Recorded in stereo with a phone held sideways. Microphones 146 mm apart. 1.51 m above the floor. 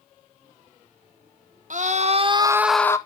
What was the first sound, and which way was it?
A scream, 60° right (ahead or behind).